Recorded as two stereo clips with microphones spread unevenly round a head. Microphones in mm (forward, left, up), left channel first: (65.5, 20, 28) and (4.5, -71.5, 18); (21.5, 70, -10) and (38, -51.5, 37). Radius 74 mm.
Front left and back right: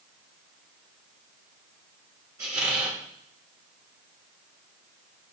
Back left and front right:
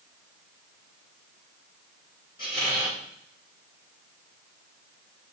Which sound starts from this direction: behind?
A squeak, at 2.4 s.